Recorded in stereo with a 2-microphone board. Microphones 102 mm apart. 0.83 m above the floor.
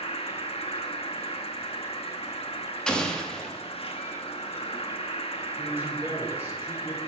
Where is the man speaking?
10° right (ahead or behind), 3.5 m.